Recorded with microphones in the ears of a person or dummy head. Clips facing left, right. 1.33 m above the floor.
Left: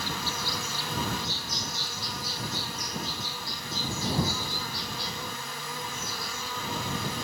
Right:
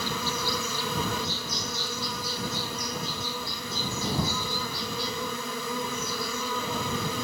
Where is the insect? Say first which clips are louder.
Right 4 dB; 75° right (ahead or behind).